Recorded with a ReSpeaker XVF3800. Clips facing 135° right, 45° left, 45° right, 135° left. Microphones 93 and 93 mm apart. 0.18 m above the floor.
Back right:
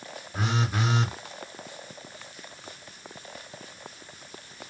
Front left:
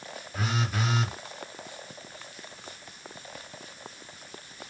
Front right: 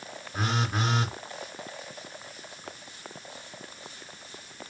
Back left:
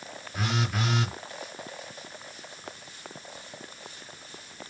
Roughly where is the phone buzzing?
Right.